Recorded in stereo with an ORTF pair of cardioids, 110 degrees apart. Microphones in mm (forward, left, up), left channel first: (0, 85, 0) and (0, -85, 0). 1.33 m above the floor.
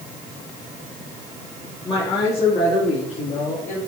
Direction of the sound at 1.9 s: 30° left.